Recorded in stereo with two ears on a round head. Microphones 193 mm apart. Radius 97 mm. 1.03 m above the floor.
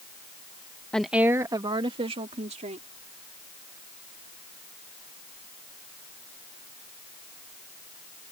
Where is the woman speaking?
5° left (ahead or behind); by 2.9 s 30° right (ahead or behind).